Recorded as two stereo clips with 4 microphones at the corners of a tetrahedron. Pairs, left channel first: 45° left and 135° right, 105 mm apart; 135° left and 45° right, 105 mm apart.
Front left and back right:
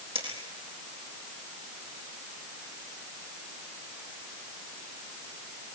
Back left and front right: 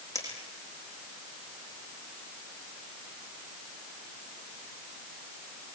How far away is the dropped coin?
About 8 m.